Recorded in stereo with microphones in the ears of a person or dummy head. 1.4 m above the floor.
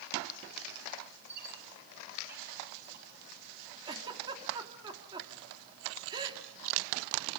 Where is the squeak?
55° right (ahead or behind), 8 m.